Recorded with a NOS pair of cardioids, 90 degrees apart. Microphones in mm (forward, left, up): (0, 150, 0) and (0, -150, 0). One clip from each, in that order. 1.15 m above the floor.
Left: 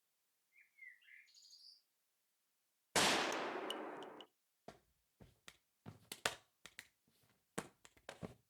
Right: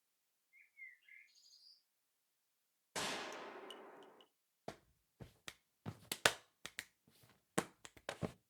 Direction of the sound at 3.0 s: 40° left.